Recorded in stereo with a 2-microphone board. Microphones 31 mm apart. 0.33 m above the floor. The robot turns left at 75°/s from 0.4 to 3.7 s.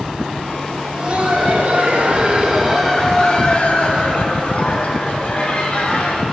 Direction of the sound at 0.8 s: 20° right.